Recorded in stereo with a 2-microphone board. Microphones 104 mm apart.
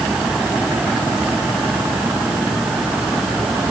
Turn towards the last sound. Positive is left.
No sound to turn to.